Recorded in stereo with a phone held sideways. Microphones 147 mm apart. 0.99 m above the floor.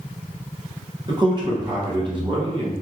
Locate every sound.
1.1 s a man speaking: 30° right (ahead or behind), 0.9 m